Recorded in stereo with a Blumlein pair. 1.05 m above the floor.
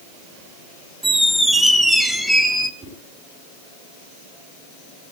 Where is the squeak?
5° right, 0.8 m.